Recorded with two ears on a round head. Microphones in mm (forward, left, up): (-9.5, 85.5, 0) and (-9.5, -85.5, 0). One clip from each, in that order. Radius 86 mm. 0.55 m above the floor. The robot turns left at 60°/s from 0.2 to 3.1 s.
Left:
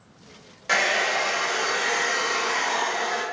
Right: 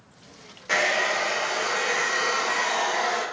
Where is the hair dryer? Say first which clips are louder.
Left 1 dB; 140° left, 0.6 m; by 3.2 s 5° right, 0.6 m.